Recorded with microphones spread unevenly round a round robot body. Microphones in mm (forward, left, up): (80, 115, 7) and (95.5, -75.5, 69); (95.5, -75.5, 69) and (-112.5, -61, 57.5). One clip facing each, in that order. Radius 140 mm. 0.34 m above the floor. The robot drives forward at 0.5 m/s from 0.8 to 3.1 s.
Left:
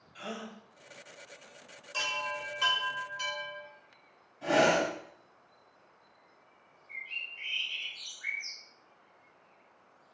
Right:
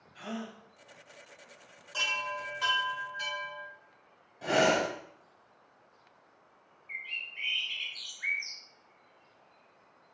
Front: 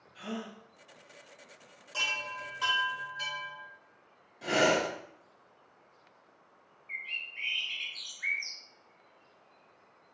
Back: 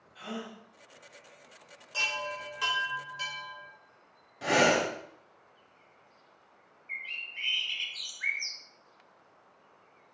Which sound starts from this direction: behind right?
A bird, at 6.9 s.